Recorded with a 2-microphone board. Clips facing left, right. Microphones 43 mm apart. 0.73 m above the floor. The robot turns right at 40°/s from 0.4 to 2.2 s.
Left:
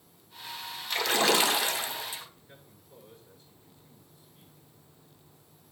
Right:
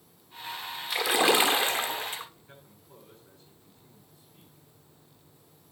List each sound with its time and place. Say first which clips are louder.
0.9 s a splash: right 2 dB; 175° right, 1.4 m; by 2.2 s 120° right, 1.4 m
2.4 s a man speaking: right 1 dB; 80° right, 8.5 m